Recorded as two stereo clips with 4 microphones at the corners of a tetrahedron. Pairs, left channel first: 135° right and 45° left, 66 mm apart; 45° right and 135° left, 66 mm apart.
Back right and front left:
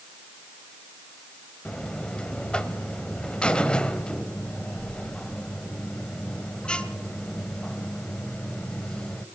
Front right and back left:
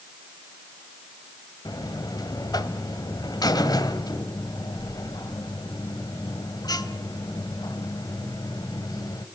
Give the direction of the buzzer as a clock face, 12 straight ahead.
2 o'clock.